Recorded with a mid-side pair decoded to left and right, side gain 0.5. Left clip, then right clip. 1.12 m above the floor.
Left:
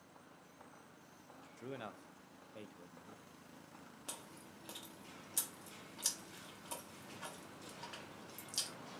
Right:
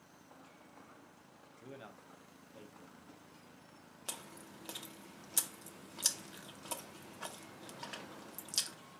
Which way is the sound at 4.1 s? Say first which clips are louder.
Right 5 dB; 40° right.